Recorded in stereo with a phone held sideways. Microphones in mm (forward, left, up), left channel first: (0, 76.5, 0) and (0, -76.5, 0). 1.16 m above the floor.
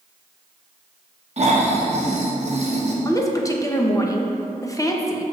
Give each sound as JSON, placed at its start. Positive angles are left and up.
{"t": 1.4, "sound": "snoring", "side_deg": -45, "distance_m": 0.8}
{"t": 3.0, "sound": "a woman speaking", "side_deg": 20, "distance_m": 0.7}